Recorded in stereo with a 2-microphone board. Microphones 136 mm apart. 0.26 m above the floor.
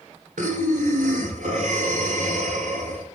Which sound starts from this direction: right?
Breathing, at 0.4 s.